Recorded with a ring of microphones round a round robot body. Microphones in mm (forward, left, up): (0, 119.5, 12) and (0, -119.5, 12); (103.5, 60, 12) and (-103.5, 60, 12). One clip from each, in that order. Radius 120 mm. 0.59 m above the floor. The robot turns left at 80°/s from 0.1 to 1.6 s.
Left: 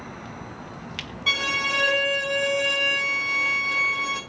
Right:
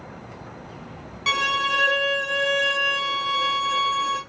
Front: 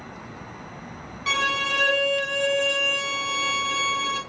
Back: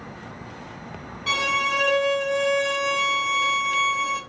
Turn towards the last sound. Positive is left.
turn(degrees=-80)